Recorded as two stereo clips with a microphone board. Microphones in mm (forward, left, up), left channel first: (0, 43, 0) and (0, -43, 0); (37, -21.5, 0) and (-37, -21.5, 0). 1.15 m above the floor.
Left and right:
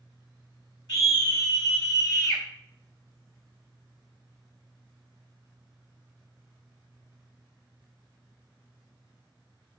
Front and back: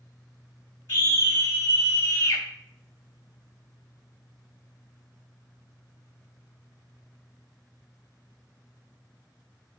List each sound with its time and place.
0.9 s a scream: 50° left, 3 m; by 2.4 s 45° left, 2 m